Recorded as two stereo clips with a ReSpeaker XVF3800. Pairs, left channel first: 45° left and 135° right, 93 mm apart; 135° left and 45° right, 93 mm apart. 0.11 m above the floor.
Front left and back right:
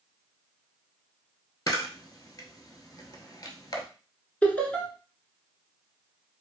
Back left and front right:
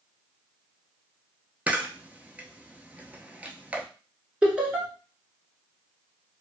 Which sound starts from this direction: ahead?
Laughter, at 4.4 s.